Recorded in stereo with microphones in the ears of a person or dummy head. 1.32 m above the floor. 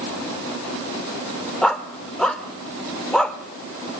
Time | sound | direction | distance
1.6 | a dog barking | 5° left (ahead or behind) | 1.6 m